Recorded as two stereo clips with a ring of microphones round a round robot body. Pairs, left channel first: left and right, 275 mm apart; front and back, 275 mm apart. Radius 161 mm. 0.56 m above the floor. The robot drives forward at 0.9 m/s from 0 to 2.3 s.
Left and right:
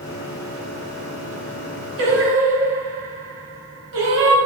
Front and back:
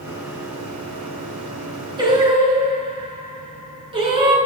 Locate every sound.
2.0 s singing: 105° right, 5.5 m; by 4.3 s 110° right, 5.5 m